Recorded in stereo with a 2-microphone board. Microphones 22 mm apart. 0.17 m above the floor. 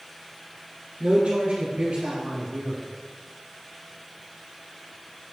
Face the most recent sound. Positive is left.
turn(degrees=-60)  # may be behind; listen again after turning